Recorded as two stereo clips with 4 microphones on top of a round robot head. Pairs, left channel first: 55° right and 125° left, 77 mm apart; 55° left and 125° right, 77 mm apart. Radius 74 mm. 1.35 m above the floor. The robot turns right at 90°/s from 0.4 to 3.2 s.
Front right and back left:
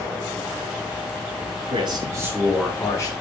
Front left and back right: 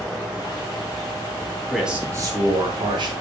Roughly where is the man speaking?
Behind left.